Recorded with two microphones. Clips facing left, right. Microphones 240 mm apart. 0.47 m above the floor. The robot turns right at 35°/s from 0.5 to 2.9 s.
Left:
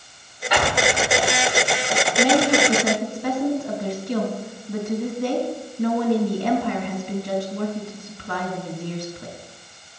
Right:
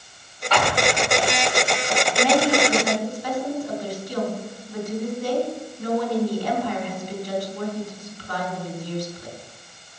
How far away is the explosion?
About 1.8 m.